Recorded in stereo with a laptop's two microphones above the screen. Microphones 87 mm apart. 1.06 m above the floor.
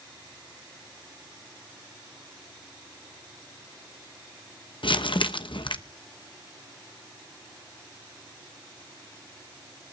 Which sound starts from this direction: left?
Crumpling, at 4.8 s.